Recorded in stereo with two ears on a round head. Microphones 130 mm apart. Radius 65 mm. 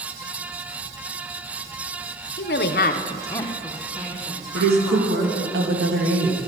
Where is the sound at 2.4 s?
70° left (ahead or behind), 0.9 m; by 5.5 s 20° right (ahead or behind), 3.5 m.